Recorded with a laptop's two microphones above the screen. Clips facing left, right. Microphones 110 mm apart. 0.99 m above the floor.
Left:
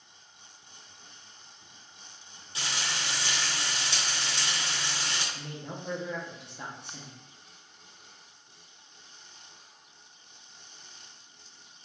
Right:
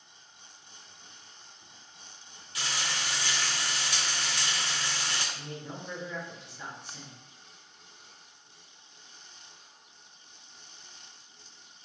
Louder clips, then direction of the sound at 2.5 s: Even; 25° left (ahead or behind).